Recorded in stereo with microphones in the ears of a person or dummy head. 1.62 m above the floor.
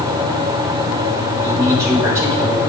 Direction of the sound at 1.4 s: 10° right (ahead or behind).